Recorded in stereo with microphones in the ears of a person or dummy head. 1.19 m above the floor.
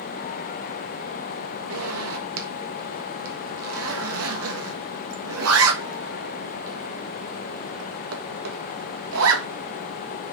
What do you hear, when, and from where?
1.7 s a zipper: 80° right, 1.4 m